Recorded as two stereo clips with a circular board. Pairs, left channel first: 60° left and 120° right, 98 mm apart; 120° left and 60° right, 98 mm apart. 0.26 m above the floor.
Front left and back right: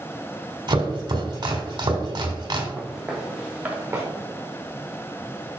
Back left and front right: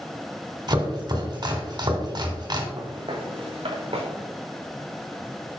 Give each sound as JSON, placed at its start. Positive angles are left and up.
{"t": 0.7, "sound": "chopping", "azimuth_deg": -90, "distance_m": 1.4}
{"t": 2.8, "sound": "footsteps", "azimuth_deg": -25, "distance_m": 1.8}